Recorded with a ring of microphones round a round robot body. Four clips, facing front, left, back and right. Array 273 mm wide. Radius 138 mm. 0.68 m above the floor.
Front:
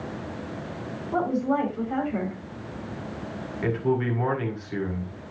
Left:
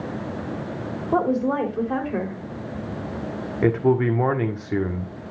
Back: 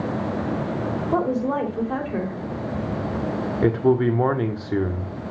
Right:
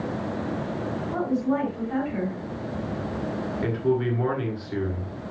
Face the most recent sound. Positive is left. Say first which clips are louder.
# left 6 dB, back 6 dB
turn(degrees=140)